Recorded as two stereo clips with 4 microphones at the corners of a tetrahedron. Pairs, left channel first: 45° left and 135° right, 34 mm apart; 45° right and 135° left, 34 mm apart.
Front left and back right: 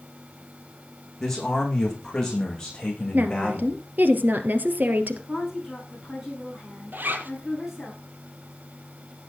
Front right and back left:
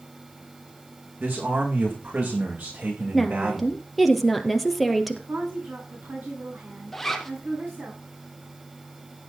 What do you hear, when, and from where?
1.2 s a man speaking: 125° left, 7.5 m; by 3.8 s 120° left, 10.5 m
3.1 s a woman speaking: 130° right, 2.5 m
5.3 s a woman speaking: 145° left, 8 m
6.9 s a zipper: 125° right, 2 m